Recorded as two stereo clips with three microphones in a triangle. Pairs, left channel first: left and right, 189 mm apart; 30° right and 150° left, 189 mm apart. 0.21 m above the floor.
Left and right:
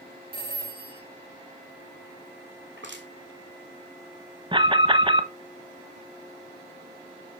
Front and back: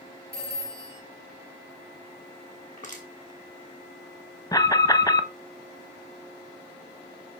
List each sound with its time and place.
0.3 s a phone ringing: 30° left, 2.5 m
2.8 s crushing: 80° right, 2.5 m
4.5 s an alarm: 75° right, 0.8 m